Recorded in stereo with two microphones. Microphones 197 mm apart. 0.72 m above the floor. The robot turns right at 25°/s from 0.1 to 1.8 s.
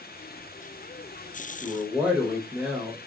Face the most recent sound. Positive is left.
turn(degrees=-5)  # may be behind; listen again after turning